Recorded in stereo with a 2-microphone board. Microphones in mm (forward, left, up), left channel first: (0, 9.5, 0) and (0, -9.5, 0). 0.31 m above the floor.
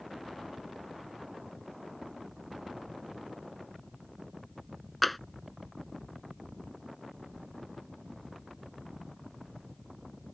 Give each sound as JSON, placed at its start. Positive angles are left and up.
{"t": 5.0, "sound": "tapping", "side_deg": 5}